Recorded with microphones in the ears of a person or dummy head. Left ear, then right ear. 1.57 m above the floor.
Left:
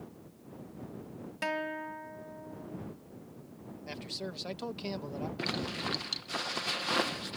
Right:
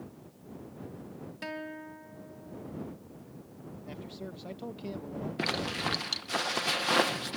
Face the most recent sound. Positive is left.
turn(degrees=-15)  # may be behind; listen again after turning